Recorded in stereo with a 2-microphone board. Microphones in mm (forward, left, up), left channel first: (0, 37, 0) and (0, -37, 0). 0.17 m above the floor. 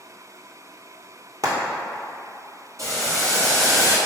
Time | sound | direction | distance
1.4 | frying | 55° right (ahead or behind) | 1.1 m
2.8 | boiling | 45° right (ahead or behind) | 1.4 m